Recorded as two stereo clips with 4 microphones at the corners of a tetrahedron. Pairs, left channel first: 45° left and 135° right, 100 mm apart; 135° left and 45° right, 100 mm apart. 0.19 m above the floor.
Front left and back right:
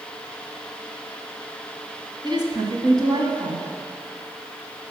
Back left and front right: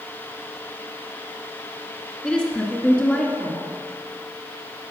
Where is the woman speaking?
150° right, 1.6 m.